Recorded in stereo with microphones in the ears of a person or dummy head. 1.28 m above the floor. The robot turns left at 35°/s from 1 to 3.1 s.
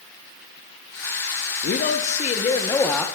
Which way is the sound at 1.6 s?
55° left.